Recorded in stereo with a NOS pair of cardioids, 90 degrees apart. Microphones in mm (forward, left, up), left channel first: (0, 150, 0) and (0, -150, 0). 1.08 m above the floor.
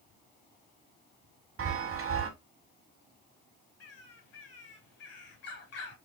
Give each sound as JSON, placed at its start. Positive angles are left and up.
{"t": 1.6, "sound": "a chime", "azimuth_deg": -55, "distance_m": 1.4}
{"t": 3.8, "sound": "a bird", "azimuth_deg": 65, "distance_m": 1.9}